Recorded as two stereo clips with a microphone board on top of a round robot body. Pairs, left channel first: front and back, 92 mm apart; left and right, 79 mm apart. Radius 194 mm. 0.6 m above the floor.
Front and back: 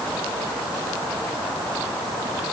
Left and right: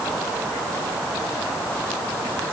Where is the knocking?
I don't hear knocking.